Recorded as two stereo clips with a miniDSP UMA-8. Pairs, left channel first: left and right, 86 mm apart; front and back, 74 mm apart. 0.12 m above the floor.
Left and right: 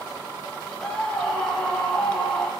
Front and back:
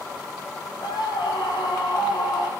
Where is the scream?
10° left, 6 m.